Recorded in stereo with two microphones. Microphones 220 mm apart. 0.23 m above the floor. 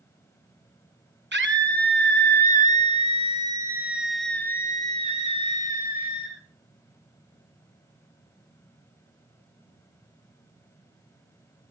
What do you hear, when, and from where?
1.3 s a scream: 50° right (ahead or behind), 2.5 m; by 6.4 s 45° left (ahead or behind), 2.0 m